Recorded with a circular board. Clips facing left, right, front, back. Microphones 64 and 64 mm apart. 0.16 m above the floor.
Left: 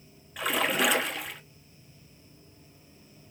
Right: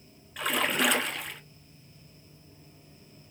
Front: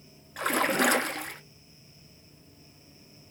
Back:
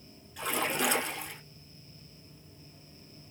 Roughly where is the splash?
Ahead.